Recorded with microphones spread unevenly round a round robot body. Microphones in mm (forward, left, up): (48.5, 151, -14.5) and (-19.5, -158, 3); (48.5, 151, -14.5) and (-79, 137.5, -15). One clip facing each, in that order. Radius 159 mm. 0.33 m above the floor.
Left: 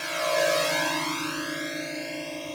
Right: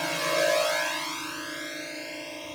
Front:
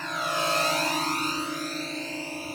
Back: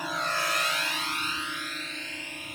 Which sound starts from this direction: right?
A drone, at 0.0 s.